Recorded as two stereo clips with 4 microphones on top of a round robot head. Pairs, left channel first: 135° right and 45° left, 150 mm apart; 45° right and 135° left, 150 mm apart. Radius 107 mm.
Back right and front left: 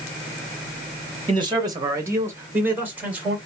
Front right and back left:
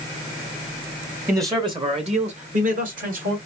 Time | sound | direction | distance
1.3 | a man speaking | 70° left | 1.1 m